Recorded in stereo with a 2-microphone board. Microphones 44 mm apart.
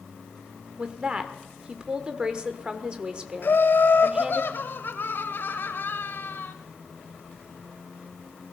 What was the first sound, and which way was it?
A woman speaking, 20° right (ahead or behind).